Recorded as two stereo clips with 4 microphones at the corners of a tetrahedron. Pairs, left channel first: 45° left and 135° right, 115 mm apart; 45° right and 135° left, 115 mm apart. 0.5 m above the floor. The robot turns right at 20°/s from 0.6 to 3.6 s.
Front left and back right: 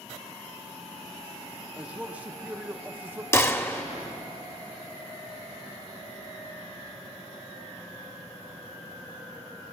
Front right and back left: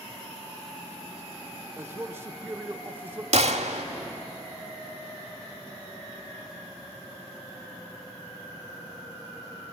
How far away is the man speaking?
About 0.8 m.